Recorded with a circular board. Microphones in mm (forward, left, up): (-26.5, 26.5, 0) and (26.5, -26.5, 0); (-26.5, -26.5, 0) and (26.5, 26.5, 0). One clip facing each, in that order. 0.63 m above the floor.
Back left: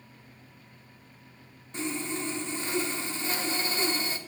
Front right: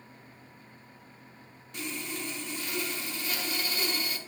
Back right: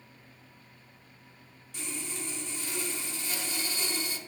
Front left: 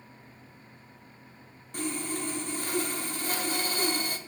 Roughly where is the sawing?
Left.